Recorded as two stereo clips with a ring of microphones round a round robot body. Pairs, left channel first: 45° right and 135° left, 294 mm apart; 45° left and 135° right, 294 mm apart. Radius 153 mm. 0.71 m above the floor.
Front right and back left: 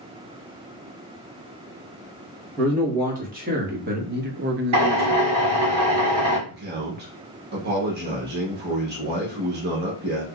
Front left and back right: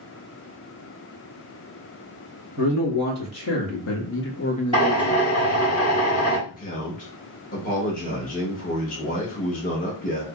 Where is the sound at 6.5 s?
95° left, 1.1 m.